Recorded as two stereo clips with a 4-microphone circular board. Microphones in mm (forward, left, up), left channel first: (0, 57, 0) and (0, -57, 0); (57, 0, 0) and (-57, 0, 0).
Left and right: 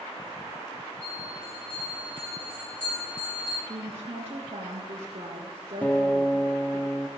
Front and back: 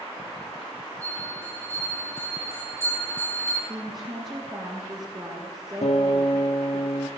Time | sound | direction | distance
1.0 | a bell | 115° left | 6.5 m
3.7 | a woman speaking | 125° right | 3.5 m
5.8 | a guitar | 15° left | 1.0 m